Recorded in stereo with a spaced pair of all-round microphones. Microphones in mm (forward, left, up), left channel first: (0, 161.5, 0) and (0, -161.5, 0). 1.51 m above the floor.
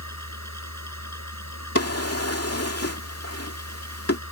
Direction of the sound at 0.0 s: 50° left (ahead or behind).